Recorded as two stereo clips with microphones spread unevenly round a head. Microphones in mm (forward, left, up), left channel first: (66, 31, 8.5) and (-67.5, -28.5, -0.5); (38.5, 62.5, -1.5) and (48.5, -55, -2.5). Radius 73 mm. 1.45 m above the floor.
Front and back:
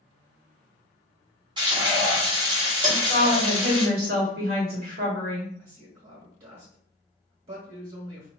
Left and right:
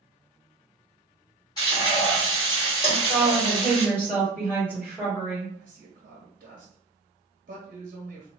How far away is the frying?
About 1.5 m.